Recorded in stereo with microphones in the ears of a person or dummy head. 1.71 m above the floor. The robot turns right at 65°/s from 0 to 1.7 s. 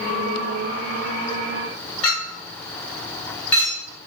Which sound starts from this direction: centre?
A clink, at 2.0 s.